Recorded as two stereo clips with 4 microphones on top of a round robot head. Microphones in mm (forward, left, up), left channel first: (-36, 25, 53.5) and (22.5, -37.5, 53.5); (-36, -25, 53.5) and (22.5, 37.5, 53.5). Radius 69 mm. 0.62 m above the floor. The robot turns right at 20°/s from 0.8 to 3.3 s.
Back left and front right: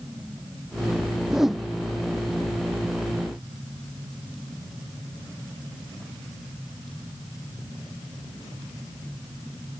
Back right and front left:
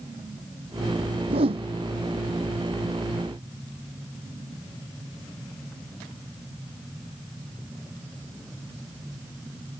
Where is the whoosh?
35° left; by 1.7 s 45° left.